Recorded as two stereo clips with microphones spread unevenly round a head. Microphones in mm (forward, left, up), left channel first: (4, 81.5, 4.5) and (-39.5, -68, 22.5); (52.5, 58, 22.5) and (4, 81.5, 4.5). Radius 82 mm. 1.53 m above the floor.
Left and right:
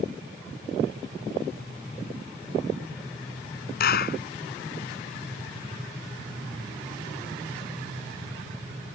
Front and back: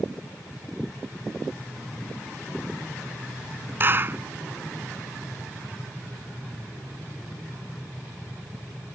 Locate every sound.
3.8 s a clap: 105° left